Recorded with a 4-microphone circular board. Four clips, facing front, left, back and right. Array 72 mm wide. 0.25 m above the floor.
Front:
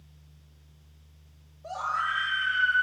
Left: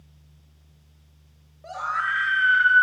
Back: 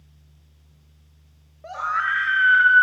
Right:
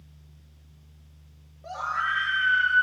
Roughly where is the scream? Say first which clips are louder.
Left 2 dB, back 5 dB; behind.